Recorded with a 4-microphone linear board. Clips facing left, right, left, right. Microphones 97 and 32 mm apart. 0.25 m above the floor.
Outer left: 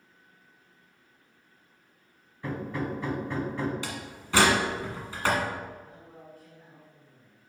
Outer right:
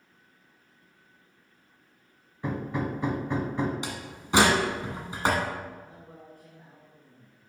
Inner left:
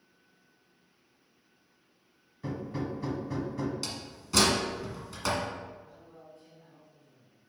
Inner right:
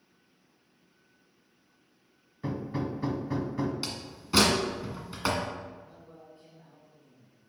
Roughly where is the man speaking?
Right.